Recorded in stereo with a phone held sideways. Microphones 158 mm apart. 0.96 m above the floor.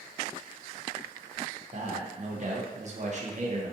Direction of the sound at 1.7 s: 50° right (ahead or behind).